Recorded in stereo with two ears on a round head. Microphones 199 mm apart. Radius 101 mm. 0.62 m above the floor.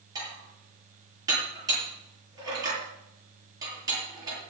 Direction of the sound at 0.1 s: 20° right (ahead or behind).